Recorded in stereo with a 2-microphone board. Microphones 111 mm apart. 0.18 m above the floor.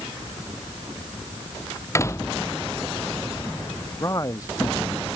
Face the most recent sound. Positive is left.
turn(degrees=30)  # may be behind; listen again after turning